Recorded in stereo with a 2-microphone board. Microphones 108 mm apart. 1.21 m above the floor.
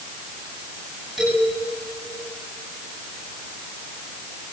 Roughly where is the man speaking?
Centre.